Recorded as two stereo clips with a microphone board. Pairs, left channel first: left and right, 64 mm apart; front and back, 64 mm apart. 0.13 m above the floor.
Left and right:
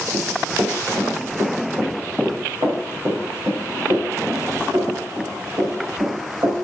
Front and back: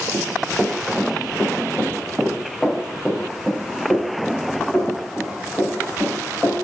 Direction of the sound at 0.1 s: 105° right.